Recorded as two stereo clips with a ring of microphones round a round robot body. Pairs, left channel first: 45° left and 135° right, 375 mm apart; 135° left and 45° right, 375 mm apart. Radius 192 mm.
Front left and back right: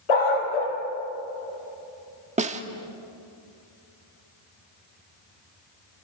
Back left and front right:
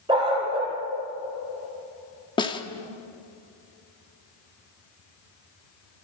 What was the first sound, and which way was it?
A dog barking, 30° left.